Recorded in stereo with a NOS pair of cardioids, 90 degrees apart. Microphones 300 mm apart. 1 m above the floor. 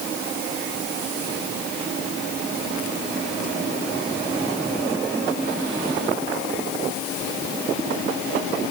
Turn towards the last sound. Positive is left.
No sound to turn to.